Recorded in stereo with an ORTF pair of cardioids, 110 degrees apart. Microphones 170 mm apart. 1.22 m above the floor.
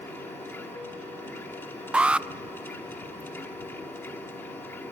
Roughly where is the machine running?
Ahead.